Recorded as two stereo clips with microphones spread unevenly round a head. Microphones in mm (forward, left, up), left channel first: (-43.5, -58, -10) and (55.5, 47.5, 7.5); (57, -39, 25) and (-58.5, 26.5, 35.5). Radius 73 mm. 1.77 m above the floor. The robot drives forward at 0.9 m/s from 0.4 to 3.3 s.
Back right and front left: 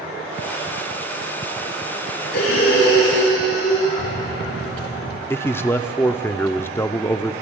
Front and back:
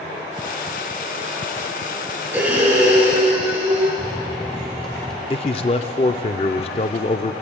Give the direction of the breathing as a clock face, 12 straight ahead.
4 o'clock.